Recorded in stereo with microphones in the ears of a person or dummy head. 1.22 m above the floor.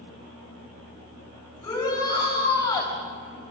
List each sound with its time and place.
1.6 s a shout: 20° left (ahead or behind), 6 m